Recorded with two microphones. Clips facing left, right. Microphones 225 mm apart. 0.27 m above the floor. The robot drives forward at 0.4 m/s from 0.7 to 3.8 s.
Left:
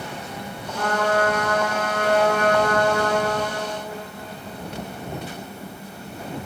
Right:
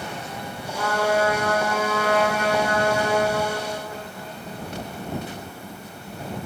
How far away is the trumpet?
About 1.8 m.